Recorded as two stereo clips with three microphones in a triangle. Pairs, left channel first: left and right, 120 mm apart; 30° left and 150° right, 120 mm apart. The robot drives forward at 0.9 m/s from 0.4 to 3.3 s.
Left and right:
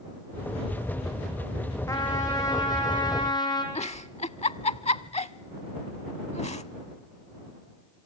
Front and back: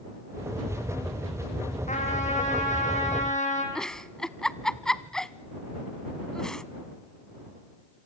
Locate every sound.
1.9 s a trumpet: 30° left, 5.5 m; by 3.6 s 35° left, 4.5 m
3.8 s a giggle: 115° left, 0.6 m